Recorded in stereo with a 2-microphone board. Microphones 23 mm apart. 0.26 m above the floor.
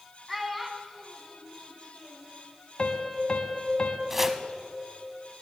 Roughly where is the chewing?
I don't hear chewing.